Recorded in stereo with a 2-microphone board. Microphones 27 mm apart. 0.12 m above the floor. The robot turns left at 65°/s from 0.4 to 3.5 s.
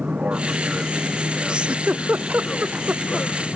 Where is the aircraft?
115° right; by 3.6 s 45° left.